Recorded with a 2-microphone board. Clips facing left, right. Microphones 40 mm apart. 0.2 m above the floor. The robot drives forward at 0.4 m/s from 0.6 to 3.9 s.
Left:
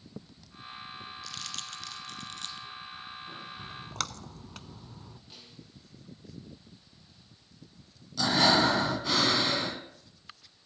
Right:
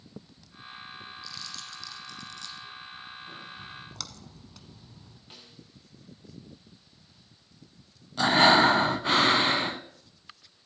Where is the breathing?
35° right (ahead or behind), 1.0 m.